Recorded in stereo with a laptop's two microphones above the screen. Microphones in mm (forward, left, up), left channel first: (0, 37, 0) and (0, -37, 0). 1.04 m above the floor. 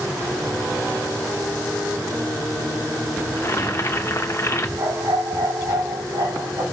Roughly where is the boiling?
Left.